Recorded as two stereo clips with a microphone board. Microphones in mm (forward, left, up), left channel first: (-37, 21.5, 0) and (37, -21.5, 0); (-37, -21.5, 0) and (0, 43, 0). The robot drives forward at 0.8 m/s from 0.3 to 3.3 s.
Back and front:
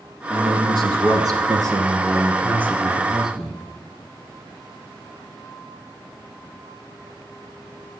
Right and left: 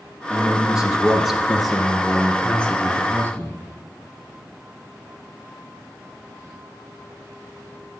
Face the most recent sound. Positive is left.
turn(degrees=-110)